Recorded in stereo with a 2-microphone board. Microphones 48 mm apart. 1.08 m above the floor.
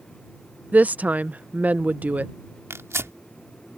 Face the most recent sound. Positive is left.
turn(degrees=-75)  # may be behind; listen again after turning